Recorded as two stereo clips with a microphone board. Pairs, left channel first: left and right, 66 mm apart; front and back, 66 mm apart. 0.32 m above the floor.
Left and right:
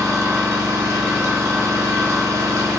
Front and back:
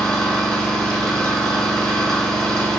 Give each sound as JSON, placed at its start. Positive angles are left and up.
{"t": 0.0, "sound": "an engine running", "azimuth_deg": -75, "distance_m": 0.8}